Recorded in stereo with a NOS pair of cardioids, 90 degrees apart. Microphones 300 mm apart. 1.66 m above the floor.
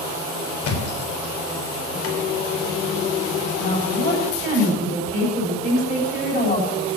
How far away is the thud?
About 3.5 m.